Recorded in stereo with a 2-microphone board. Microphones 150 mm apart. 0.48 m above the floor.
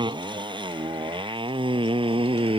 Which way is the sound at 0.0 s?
30° right (ahead or behind).